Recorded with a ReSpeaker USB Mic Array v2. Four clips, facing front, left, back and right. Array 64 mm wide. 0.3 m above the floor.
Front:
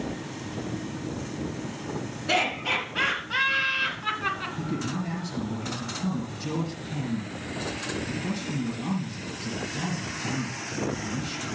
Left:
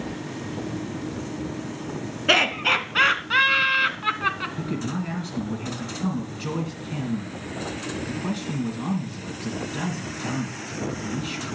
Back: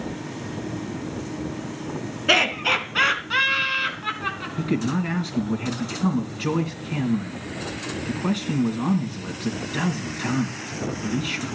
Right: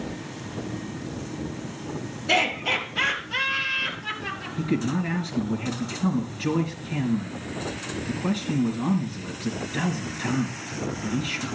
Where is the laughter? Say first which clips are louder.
Left 3 dB, back 5 dB; 125° left, 3.5 m; by 4.5 s 85° left, 3 m.